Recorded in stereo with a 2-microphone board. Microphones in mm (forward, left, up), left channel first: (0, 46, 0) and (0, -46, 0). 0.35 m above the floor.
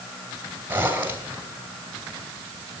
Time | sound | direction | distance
0.7 | a zipper | 20° right (ahead or behind) | 2.5 m